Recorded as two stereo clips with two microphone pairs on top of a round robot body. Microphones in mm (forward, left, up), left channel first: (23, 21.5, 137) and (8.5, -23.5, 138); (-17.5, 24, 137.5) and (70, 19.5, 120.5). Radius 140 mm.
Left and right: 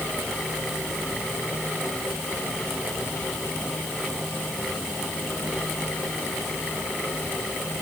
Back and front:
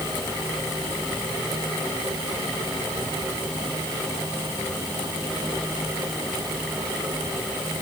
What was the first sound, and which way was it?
Only background noise.